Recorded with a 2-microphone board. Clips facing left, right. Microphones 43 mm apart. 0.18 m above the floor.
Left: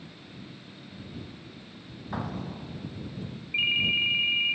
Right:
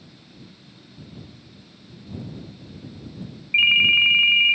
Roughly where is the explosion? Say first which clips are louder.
Left 3 dB; left.